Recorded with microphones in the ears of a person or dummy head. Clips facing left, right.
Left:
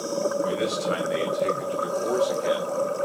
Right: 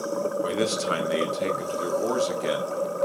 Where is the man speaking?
50° right (ahead or behind), 0.7 m.